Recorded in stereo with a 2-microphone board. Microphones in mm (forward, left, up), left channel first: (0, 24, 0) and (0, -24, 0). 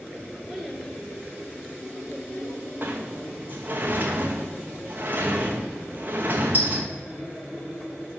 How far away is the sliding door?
About 1.3 m.